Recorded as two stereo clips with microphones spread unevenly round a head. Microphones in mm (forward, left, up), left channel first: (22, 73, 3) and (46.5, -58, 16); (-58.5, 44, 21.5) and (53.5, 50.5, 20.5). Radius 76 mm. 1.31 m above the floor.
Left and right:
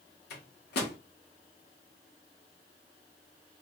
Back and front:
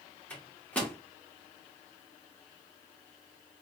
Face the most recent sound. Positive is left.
turn(degrees=105)